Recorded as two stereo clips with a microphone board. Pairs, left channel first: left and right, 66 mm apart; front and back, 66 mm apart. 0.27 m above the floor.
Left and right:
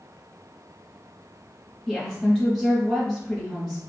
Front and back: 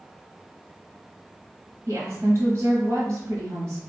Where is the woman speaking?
165° left, 1.4 m.